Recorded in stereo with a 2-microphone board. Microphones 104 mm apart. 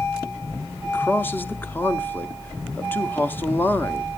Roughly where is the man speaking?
Centre.